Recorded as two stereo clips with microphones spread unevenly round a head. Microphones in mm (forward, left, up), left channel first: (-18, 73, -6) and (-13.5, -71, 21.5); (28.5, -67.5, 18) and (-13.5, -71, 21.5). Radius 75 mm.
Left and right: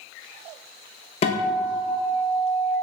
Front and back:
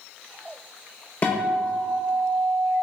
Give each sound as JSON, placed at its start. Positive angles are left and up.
{"t": 1.2, "sound": "a guitar", "azimuth_deg": 55, "distance_m": 0.5}